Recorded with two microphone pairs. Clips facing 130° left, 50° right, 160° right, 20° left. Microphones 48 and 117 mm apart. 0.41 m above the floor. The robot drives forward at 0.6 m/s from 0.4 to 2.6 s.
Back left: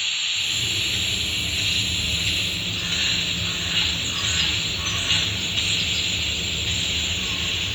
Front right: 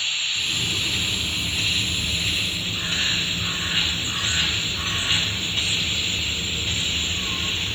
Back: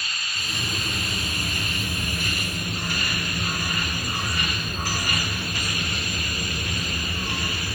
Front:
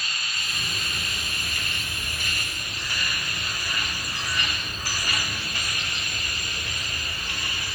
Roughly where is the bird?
Right.